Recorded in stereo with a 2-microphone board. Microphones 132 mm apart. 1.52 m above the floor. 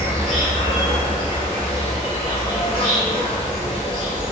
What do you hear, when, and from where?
0.0 s an insect: 45° left (ahead or behind), 1.3 m